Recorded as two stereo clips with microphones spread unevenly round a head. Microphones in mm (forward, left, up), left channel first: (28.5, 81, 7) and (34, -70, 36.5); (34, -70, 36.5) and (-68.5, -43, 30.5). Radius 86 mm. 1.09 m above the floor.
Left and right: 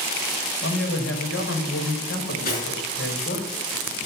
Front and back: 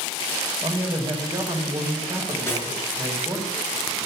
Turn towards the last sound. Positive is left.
turn(degrees=65)